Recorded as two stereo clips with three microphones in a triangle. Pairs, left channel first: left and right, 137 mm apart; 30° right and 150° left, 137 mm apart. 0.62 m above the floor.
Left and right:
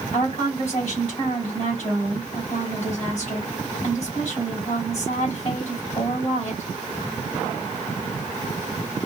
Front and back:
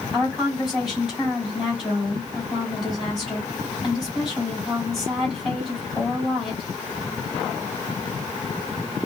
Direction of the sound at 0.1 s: 60° left.